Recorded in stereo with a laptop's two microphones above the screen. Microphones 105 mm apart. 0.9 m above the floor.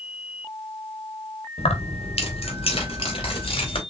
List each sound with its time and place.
1.6 s keys jangling: 80° left, 1.2 m; by 3.8 s 55° left (ahead or behind), 3 m